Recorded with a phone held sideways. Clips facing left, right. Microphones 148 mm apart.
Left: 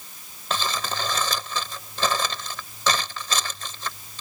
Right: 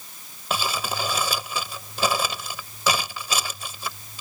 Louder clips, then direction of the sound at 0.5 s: Right 1 dB; 10° right (ahead or behind).